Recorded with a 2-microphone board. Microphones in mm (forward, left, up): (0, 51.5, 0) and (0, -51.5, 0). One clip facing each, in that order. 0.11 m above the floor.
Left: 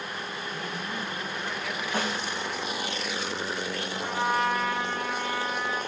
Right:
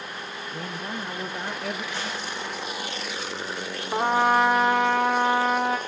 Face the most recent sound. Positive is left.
turn(degrees=-75)  # may be behind; listen again after turning